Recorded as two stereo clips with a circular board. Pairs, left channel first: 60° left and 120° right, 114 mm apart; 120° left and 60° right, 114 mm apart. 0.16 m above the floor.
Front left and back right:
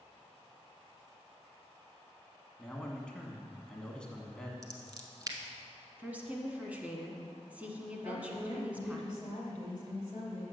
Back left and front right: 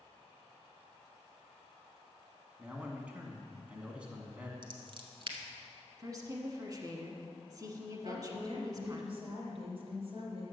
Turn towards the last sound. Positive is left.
turn(degrees=-80)